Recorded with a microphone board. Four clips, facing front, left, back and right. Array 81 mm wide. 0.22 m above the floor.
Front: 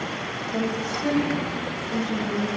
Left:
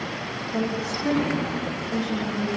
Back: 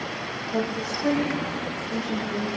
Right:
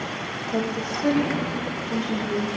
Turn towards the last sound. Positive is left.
turn(degrees=-90)